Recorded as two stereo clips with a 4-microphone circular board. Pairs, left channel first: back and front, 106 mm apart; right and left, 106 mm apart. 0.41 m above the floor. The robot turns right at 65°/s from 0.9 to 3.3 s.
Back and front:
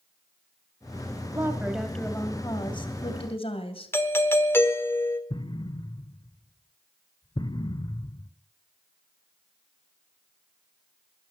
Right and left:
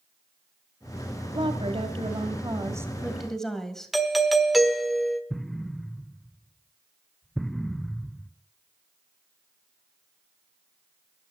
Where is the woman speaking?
55° left, 2 m; by 3.9 s 175° right, 2 m.